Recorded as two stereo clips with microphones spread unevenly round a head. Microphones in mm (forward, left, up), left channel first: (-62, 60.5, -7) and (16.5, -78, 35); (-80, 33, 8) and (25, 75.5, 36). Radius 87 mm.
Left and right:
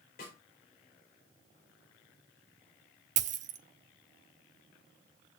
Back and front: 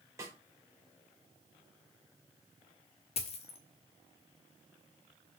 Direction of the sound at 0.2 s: 90° left.